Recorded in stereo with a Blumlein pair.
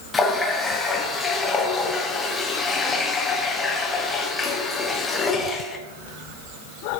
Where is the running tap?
15° left, 1.2 m.